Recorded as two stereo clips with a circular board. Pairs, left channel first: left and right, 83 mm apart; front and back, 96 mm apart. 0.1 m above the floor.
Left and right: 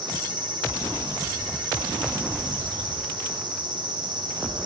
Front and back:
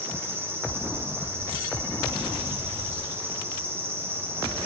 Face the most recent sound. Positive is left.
turn(degrees=-115)